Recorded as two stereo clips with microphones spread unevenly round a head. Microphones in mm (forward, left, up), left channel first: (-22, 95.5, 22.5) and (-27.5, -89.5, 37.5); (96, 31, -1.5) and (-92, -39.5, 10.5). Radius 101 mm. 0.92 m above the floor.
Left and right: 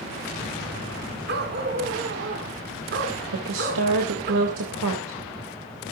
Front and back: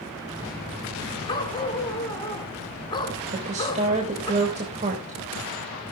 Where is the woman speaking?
100° right, 3.5 m.